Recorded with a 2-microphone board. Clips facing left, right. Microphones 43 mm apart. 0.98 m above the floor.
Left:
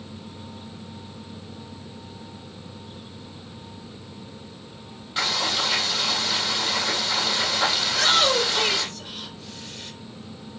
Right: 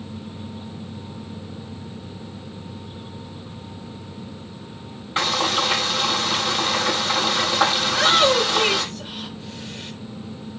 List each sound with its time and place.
5.2 s frying: 35° right (ahead or behind), 7.5 m
7.8 s a shout: 15° right (ahead or behind), 4.5 m